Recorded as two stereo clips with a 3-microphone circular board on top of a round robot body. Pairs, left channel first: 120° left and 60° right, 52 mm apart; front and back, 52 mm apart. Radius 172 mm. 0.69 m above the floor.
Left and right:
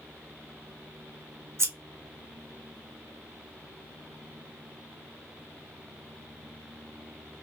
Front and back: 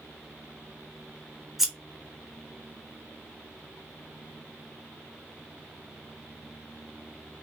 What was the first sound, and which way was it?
Scissors, 95° right.